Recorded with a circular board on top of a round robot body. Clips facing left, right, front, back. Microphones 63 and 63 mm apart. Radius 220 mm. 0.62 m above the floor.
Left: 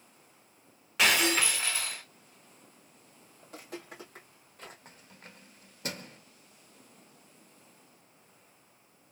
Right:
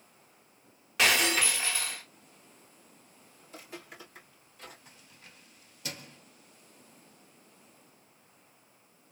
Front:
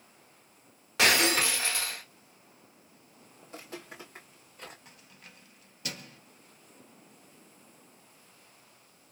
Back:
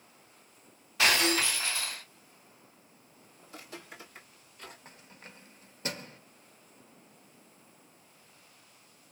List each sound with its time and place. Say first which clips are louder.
1.0 s breaking glass: even, front 2 dB; straight ahead, 1.4 m
3.4 s footsteps: left 3 dB, front 3 dB; 60° left, 1.6 m; by 4.8 s 45° left, 2.5 m
4.8 s keys jangling: left 3 dB, back 3 dB; 130° left, 0.8 m